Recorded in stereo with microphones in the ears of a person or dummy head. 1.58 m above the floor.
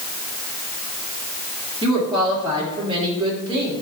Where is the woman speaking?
25° right (ahead or behind), 3 m.